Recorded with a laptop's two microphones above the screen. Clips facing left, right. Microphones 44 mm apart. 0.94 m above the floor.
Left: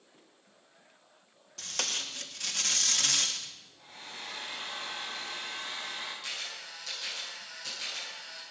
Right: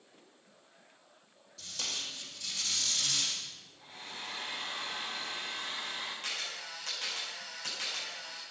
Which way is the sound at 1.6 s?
65° left (ahead or behind).